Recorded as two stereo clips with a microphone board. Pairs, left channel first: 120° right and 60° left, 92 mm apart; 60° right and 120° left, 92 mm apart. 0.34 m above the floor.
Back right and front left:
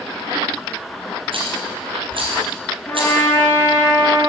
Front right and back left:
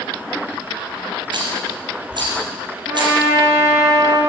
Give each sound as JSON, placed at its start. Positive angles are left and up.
{"t": 1.3, "sound": "a rattle", "azimuth_deg": 85, "distance_m": 4.5}
{"t": 2.9, "sound": "a trumpet", "azimuth_deg": 175, "distance_m": 5.0}